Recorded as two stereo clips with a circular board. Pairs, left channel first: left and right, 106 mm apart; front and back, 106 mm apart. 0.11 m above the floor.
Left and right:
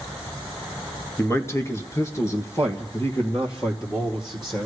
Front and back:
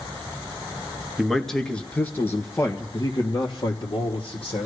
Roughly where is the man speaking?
Left.